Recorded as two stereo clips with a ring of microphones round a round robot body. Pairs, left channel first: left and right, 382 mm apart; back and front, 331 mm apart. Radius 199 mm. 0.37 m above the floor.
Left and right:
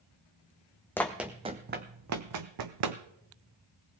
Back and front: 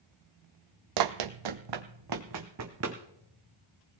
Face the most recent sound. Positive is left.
turn(degrees=-60)